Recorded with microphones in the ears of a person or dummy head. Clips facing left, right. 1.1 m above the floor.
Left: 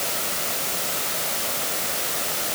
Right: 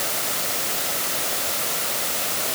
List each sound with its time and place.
Only background noise.